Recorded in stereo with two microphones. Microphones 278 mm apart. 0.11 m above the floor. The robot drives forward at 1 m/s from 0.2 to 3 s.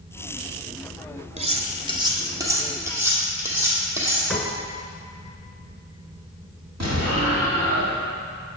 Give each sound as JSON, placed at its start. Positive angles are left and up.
{"t": 1.4, "sound": "cutlery clinking", "side_deg": -25, "distance_m": 0.7}
{"t": 4.3, "sound": "a piano", "side_deg": 0, "distance_m": 0.7}
{"t": 6.8, "sound": "an explosion", "side_deg": -70, "distance_m": 2.5}